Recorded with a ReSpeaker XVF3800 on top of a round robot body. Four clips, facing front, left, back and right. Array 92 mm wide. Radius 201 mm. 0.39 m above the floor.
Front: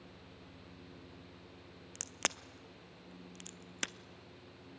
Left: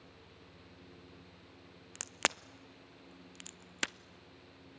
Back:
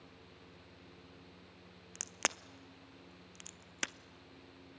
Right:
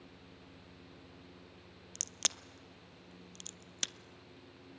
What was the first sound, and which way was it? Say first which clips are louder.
A crack: left 9 dB, back 1 dB; 95° left.